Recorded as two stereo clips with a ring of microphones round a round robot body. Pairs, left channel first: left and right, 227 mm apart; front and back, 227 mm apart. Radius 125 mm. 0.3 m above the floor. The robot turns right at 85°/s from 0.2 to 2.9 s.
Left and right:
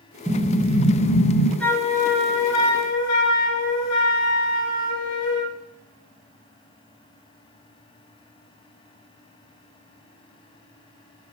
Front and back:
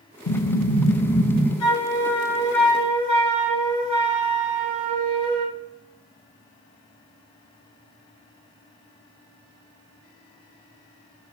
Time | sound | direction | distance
0.3 | an explosion | 10° right | 1.4 m
1.6 | a flute | 5° left | 1.2 m